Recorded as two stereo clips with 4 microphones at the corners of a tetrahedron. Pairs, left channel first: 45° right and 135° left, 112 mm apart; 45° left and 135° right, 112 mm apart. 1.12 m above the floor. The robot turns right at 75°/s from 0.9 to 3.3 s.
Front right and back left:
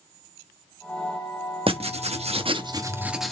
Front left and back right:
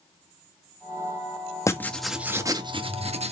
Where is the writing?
105° left, 1.1 m; by 3.3 s 130° right, 1.1 m.